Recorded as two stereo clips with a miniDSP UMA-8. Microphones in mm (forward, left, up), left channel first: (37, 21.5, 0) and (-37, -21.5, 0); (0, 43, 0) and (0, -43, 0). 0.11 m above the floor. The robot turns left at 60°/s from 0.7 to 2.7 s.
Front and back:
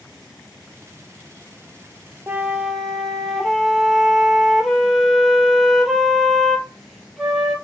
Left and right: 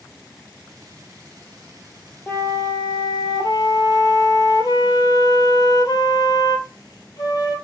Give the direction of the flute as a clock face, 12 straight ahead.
7 o'clock.